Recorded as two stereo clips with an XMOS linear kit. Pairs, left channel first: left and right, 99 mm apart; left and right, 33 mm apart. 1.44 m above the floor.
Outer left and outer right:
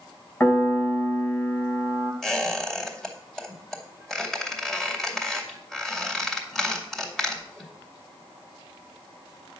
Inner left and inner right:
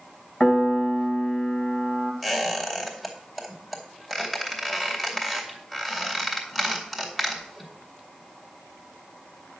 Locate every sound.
0.4 s a piano: 15° left (ahead or behind), 2 m
2.2 s a squeak: 5° left (ahead or behind), 2.5 m